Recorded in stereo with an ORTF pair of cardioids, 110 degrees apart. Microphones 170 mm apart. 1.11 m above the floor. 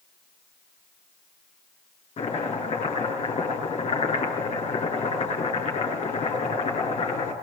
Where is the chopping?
40° left, 9.5 m.